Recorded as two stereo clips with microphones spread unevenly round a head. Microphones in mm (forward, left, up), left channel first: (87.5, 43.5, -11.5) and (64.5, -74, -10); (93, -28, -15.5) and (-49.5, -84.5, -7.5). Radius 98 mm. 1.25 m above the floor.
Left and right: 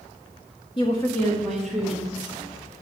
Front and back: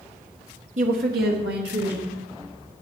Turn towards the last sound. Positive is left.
turn(degrees=180)